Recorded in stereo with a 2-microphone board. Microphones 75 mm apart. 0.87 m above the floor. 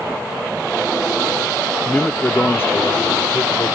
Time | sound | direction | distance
1.9 | a man speaking | 10° left (ahead or behind) | ?